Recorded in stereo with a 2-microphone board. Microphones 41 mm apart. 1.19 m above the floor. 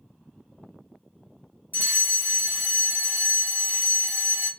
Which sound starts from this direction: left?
A fire alarm, at 1.7 s.